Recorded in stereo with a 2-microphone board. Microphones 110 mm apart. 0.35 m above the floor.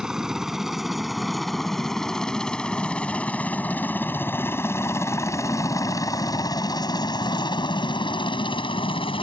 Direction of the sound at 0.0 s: 5° right (ahead or behind).